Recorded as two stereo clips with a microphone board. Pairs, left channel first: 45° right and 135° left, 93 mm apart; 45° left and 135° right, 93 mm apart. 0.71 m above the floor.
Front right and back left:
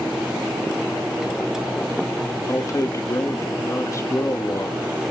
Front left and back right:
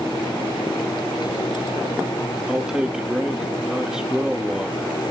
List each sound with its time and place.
2.5 s a man speaking: 60° right, 1.3 m